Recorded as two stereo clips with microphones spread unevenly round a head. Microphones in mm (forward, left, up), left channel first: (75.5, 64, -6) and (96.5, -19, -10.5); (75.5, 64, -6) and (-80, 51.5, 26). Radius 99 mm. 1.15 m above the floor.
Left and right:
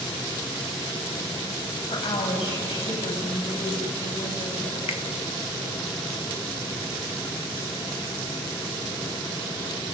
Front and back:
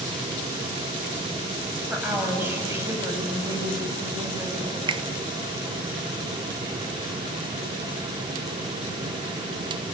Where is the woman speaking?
105° left, 6.5 m; by 4.8 s 125° left, 7 m.